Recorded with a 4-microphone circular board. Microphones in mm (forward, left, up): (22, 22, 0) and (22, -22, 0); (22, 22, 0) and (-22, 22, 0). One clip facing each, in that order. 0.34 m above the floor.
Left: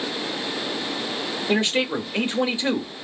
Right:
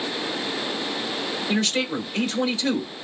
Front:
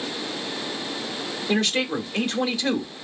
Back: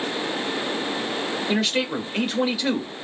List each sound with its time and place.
1.5 s a man speaking: 110° left, 0.9 m